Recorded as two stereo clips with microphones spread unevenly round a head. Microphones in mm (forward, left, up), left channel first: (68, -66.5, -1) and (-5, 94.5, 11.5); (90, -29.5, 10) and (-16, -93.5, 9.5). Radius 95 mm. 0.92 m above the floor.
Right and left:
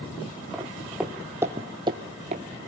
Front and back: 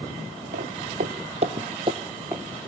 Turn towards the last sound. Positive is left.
turn(degrees=140)